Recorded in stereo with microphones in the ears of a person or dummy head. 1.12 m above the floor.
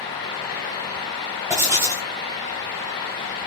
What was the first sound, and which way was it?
Writing, 10° right (ahead or behind).